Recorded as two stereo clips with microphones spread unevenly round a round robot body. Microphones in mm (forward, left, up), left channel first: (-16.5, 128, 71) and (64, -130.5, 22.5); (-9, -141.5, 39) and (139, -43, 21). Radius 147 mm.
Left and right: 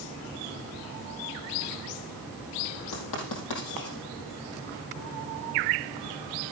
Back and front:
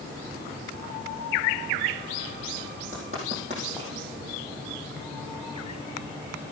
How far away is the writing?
About 4.5 m.